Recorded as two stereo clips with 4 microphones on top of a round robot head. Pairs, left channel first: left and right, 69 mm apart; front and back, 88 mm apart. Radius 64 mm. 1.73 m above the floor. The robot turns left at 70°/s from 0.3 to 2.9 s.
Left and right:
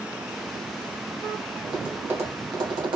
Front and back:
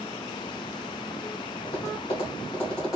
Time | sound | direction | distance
1.6 | tapping | 5° right | 1.7 m